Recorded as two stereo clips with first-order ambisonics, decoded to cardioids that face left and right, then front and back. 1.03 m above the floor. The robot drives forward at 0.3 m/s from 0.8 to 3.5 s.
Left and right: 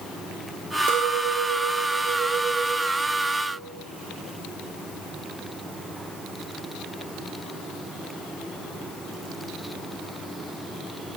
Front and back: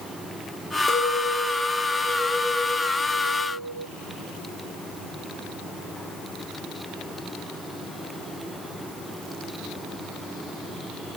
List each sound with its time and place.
0.9 s a clink: 75° right, 0.7 m; by 3.9 s 130° right, 0.9 m